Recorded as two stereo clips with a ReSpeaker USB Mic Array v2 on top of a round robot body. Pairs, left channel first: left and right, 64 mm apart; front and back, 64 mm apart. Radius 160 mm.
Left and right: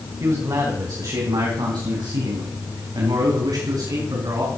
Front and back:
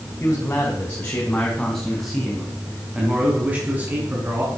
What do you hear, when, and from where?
0.2 s a man speaking: 55° right, 4 m; by 4.5 s 125° right, 5 m